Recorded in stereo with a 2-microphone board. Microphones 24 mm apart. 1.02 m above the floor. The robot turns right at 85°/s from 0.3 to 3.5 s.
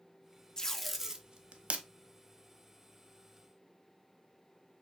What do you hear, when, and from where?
0.6 s tape being pulled: 25° left (ahead or behind), 0.6 m; by 1.9 s 80° right, 0.6 m